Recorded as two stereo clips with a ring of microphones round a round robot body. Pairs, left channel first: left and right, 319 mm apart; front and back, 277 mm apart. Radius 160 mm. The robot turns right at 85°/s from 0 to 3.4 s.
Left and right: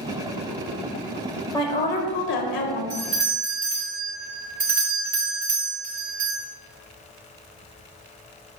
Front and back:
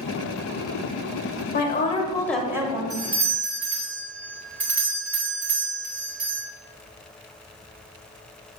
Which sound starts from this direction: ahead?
A woman speaking, at 1.5 s.